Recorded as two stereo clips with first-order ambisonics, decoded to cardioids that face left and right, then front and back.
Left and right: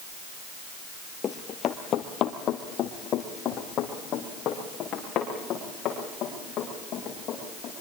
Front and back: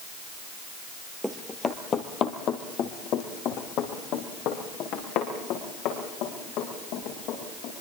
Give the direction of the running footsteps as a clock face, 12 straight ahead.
9 o'clock.